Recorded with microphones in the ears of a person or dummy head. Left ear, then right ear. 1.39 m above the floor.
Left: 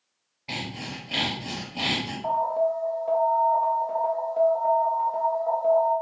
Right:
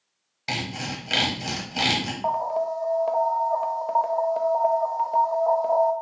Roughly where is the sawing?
Right.